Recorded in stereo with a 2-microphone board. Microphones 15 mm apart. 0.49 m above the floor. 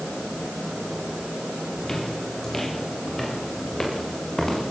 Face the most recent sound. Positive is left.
turn(degrees=30)  # may be behind; listen again after turning